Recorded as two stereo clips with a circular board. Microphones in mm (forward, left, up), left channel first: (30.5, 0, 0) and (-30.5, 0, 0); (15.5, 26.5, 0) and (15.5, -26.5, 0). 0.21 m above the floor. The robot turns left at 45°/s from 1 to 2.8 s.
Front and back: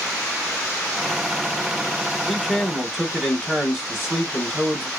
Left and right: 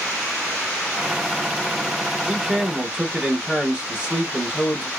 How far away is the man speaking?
About 1.0 m.